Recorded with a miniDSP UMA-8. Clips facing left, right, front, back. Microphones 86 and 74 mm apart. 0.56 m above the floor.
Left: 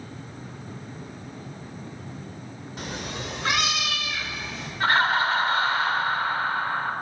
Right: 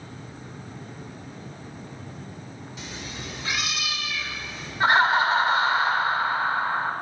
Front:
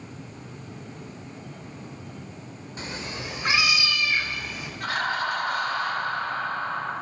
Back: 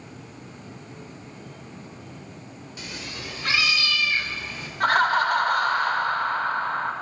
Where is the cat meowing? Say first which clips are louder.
Left 6 dB, front 3 dB; 50° left, 0.5 m; by 4.7 s 80° left, 1.5 m.